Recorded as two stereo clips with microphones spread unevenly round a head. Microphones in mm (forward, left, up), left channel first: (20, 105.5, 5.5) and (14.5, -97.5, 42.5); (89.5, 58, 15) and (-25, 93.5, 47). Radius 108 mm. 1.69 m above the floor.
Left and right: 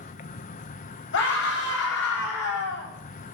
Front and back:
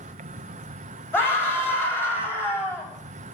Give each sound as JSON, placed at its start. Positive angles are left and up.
{"t": 0.0, "sound": "an insect", "azimuth_deg": 145, "distance_m": 0.9}
{"t": 1.1, "sound": "a scream", "azimuth_deg": 55, "distance_m": 9.0}